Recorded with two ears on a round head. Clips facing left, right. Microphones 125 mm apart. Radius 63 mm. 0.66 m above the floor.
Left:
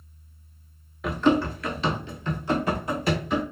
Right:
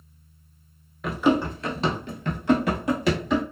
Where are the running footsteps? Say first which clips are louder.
Even; centre (ahead or behind), 0.7 m; by 3.4 s 65° right (ahead or behind), 1.3 m.